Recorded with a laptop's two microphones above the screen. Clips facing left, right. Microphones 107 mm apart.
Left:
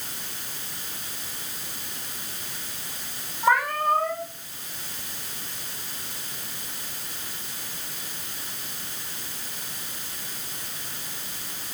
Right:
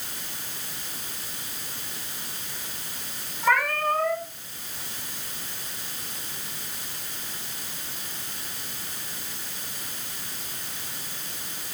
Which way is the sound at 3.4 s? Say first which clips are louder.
Left 2 dB; 15° left (ahead or behind).